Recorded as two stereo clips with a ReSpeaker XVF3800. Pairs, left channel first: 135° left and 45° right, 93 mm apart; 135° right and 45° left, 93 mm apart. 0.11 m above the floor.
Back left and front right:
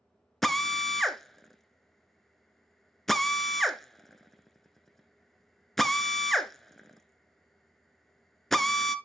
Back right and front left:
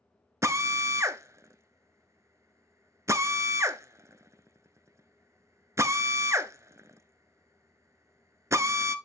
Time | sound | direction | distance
0.4 | a drill | 50° left | 0.6 m